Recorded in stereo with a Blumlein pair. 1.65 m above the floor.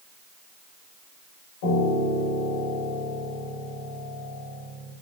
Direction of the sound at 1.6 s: 50° left.